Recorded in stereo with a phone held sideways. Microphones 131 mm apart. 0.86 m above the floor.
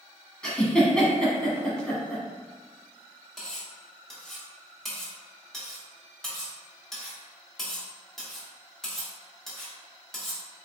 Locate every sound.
0.4 s a giggle: 5° left (ahead or behind), 1.2 m
3.4 s cutlery clinking: centre (ahead or behind), 1.2 m